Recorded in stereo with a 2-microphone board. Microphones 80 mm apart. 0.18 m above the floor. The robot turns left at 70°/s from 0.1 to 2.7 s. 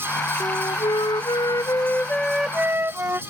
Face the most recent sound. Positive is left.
turn(degrees=-30)